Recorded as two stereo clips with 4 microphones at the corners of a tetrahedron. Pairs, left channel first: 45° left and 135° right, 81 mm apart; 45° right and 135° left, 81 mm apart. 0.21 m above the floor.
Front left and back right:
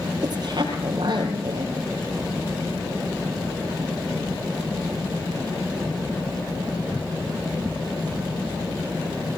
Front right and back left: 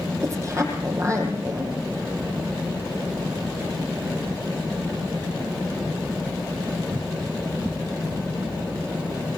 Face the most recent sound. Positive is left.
turn(degrees=-170)